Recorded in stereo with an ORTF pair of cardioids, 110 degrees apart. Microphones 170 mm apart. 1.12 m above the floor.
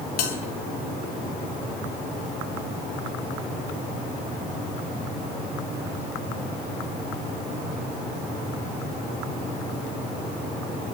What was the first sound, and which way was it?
A bell, 70° left.